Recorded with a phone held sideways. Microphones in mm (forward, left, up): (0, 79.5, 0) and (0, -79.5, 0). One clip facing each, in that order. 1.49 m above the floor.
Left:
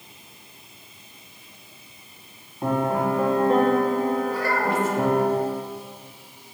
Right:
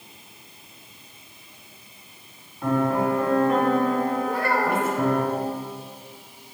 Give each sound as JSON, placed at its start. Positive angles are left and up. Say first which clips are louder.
{"t": 2.6, "sound": "a piano", "louder": "right 1 dB", "side_deg": 25, "distance_m": 2.5}
{"t": 4.3, "sound": "a child speaking", "louder": "right 1 dB", "side_deg": -55, "distance_m": 2.0}